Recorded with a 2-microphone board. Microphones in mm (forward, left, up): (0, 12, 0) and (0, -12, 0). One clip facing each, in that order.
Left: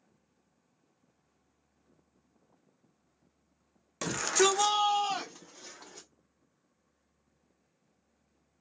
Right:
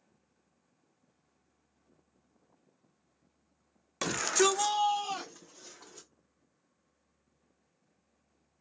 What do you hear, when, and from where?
4.0 s a shout: 15° right (ahead or behind), 0.6 m; by 6.1 s 40° left (ahead or behind), 1.5 m